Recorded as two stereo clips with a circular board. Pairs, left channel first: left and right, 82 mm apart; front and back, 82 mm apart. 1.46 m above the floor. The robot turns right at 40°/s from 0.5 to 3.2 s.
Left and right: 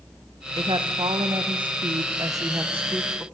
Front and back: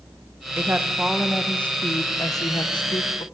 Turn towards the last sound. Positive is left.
turn(degrees=-10)